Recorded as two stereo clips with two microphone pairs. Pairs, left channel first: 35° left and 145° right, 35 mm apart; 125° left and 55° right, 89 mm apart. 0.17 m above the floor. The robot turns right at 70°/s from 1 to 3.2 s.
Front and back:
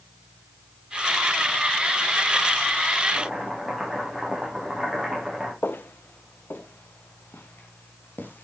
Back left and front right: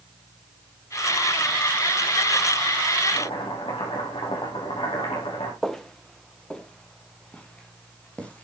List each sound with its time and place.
3.1 s chopping: 125° left, 6 m; by 5.5 s 130° left, 6 m
5.6 s footsteps: 40° left, 1.7 m; by 8.4 s 50° left, 5 m